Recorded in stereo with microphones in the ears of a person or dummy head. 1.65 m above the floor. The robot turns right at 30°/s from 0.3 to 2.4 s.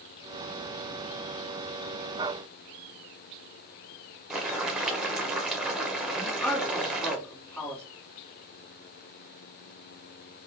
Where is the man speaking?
5° left (ahead or behind), 2 m.